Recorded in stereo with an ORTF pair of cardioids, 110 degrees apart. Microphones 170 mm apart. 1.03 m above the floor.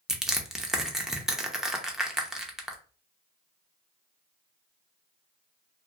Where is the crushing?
5° right, 0.5 m.